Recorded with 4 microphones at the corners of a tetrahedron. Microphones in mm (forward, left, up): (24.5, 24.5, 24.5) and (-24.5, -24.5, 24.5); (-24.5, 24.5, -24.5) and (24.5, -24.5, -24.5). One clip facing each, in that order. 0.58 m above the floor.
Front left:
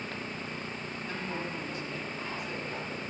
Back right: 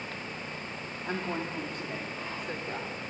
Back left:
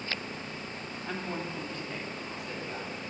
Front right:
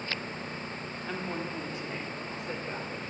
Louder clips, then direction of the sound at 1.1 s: Back right 4 dB, even; 135° right.